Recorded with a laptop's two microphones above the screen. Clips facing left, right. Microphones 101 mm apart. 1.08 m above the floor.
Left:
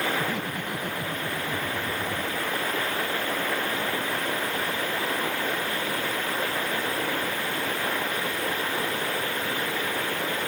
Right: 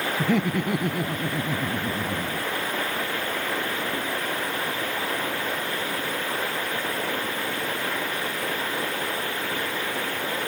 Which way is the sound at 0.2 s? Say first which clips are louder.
Right 6 dB; 70° right (ahead or behind).